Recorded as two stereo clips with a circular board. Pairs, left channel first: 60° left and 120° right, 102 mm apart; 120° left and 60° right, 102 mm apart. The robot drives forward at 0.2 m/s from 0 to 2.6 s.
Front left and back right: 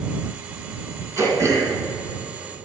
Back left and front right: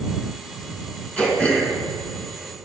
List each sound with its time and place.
1.2 s throat clearing: 165° right, 2.5 m